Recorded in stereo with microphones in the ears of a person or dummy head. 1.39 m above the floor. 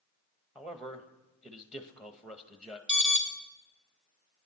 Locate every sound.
0.6 s a man speaking: 5° right (ahead or behind), 1.1 m
2.9 s an alarm: 10° left (ahead or behind), 1.5 m